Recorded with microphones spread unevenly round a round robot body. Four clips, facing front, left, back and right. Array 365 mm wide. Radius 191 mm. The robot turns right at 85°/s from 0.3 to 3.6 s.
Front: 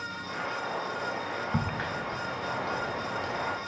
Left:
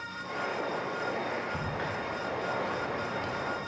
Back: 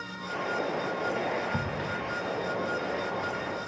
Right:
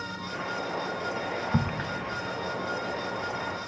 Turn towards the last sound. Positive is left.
turn(degrees=105)